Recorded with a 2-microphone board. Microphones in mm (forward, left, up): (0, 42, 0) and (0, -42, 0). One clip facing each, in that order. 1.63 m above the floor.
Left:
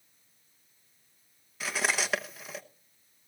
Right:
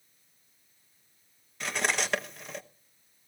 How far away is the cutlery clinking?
About 1.0 m.